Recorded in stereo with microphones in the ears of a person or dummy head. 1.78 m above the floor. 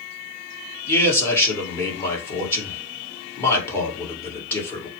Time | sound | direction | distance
0.9 | a man speaking | 10° left (ahead or behind) | 1.8 m